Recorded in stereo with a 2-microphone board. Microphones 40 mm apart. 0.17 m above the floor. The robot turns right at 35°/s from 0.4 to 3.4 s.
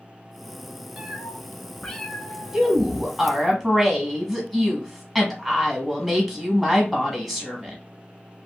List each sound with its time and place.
1.0 s a cat meowing: 10° right (ahead or behind), 0.7 m; by 3.5 s 50° left (ahead or behind), 0.7 m
2.5 s a woman speaking: 10° right (ahead or behind), 1.2 m; by 7.8 s centre (ahead or behind), 1.2 m